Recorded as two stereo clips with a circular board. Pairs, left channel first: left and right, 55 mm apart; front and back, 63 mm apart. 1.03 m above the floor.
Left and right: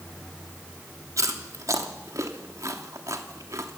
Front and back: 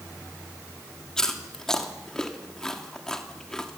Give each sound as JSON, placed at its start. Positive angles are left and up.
{"t": 1.2, "sound": "chewing", "azimuth_deg": -80, "distance_m": 3.0}